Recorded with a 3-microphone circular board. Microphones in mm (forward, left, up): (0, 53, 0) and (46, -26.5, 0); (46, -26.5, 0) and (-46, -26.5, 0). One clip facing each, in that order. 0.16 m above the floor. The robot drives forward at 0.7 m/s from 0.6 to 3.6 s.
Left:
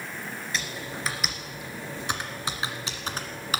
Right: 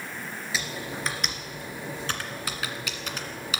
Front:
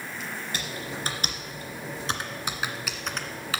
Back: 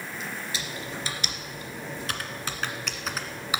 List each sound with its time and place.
0.5 s typing on a keyboard: 25° left, 2 m; by 3.6 s 115° left, 1.4 m